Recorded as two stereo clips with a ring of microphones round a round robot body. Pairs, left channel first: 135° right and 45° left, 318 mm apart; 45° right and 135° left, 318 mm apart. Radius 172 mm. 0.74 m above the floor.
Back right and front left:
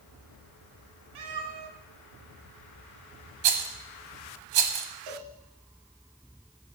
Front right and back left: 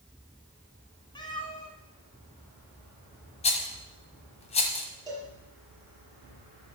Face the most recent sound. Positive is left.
turn(degrees=55)